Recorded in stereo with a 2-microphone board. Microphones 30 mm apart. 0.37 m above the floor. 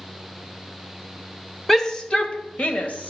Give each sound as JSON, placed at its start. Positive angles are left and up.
{"t": 1.7, "sound": "a shout", "side_deg": 15, "distance_m": 1.3}